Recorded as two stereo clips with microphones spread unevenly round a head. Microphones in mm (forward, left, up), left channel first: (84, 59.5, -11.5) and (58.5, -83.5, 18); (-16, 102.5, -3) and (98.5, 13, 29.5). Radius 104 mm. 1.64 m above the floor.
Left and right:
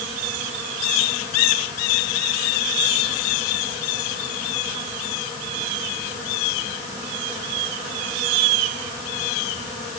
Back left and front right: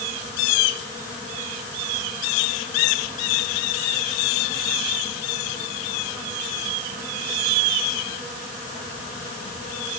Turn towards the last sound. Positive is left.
No sound to turn to.